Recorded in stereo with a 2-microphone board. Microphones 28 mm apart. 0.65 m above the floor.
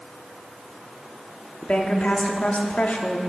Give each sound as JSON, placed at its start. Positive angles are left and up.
{"t": 1.6, "sound": "a woman speaking", "side_deg": 55, "distance_m": 1.0}